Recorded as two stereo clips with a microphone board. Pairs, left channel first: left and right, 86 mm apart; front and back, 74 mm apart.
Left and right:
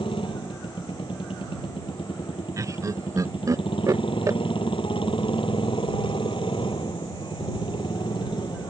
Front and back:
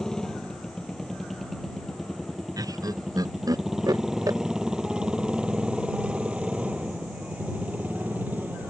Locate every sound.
0.0 s a motorcycle: 85° left; by 8.7 s 115° left
2.6 s laughter: 140° right